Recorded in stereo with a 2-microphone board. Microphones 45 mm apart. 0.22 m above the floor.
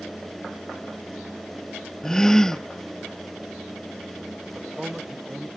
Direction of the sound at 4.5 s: 15° right (ahead or behind).